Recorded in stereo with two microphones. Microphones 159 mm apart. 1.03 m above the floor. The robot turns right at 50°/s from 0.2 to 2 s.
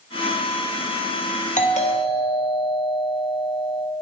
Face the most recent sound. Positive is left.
turn(degrees=40)  # may be behind; listen again after turning